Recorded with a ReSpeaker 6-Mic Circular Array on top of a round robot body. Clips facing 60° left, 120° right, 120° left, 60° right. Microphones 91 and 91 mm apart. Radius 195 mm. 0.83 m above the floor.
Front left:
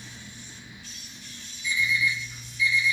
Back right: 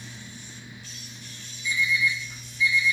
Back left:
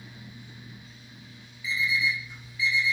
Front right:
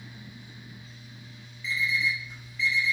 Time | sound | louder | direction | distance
1.6 | an alarm clock | back right 1 dB, back left 1 dB | 160° right | 1.1 m